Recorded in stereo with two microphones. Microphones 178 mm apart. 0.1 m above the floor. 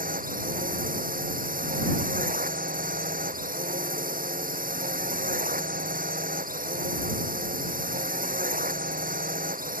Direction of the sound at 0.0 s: 50° right (ahead or behind).